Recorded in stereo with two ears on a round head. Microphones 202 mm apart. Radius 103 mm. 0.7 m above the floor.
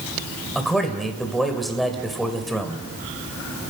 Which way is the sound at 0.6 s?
Centre (ahead or behind).